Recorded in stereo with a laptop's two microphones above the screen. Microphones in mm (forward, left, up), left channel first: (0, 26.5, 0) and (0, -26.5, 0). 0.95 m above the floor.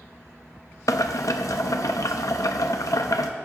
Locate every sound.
0.9 s boiling: 80° left, 0.7 m